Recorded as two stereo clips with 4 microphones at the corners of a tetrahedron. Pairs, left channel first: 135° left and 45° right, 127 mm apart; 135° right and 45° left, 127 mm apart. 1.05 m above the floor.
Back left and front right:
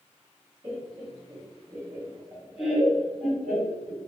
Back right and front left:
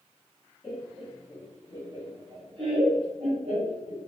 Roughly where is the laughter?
Ahead right.